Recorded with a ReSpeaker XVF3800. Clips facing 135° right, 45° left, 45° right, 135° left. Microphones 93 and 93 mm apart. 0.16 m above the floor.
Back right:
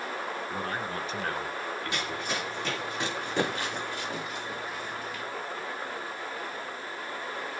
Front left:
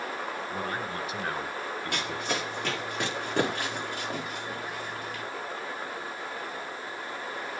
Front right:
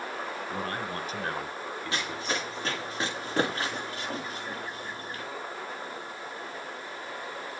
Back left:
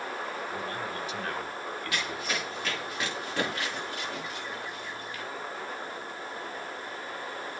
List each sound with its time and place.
0.5 s a man speaking: 45° right, 2.5 m; by 2.5 s 75° left, 1.6 m
1.9 s running footsteps: 15° left, 9 m; by 5.2 s 5° left, 7.5 m